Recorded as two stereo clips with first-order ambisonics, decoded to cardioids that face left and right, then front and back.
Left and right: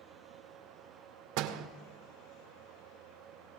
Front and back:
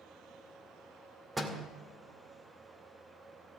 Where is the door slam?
100° right, 2 m.